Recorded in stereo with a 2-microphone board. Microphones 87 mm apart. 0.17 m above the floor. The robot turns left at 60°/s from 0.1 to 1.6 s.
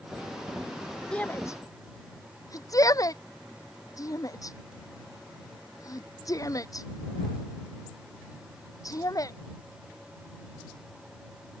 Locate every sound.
1.1 s a shout: 10° left (ahead or behind); by 9.4 s 40° left (ahead or behind)